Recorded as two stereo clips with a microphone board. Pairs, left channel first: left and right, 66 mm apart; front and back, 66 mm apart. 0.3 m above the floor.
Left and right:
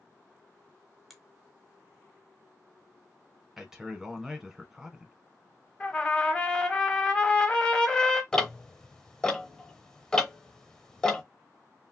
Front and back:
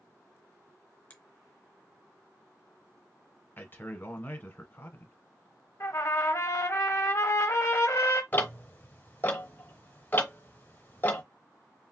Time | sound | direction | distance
1.1 | a finger snap | 5° left | 0.8 m
3.6 | a man speaking | 15° right | 1.0 m
5.8 | a trumpet | 20° left | 0.7 m
8.3 | ticking | 20° left | 0.8 m